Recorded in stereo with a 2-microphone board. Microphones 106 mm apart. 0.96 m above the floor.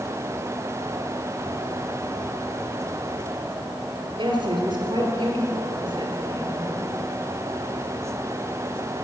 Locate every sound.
4.2 s a woman speaking: 50° right (ahead or behind), 3 m